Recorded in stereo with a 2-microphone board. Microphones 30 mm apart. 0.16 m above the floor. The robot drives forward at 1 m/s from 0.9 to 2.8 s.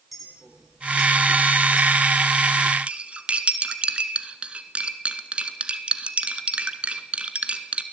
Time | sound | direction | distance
0.1 | a clink | 5° right (ahead or behind) | 4 m
2.9 | cutlery clinking | 40° right (ahead or behind) | 1.4 m